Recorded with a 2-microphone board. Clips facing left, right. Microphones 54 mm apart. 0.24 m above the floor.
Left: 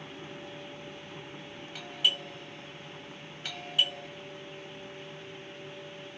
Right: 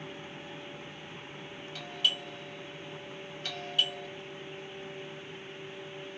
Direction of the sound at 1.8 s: 15° left (ahead or behind).